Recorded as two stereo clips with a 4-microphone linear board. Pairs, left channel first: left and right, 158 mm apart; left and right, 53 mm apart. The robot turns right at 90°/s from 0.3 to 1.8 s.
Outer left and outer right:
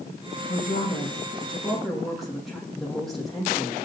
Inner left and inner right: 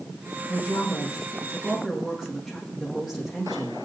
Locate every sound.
0.5 s a woman speaking: 60° left, 7.5 m; by 3.8 s straight behind, 7.5 m